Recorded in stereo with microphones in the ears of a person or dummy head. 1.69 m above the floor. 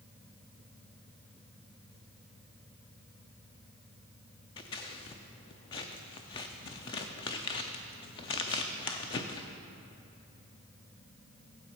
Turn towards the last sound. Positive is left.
turn(degrees=25)  # may be behind; listen again after turning